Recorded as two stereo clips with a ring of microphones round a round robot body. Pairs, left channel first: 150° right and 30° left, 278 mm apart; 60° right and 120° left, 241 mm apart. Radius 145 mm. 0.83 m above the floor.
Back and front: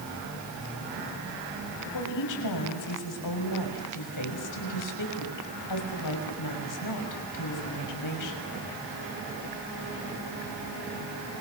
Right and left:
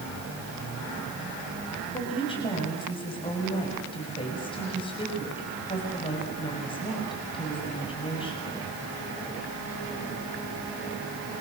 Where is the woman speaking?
135° right, 6 m.